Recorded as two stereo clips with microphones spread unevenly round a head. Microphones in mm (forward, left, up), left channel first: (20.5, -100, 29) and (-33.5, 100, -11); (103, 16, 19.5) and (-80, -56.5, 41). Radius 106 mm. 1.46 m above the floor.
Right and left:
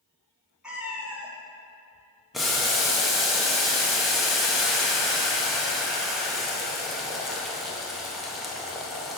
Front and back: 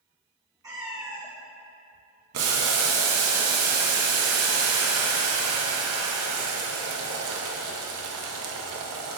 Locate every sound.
0.6 s a cat meowing: 145° right, 1.2 m
2.3 s boiling: 165° right, 1.0 m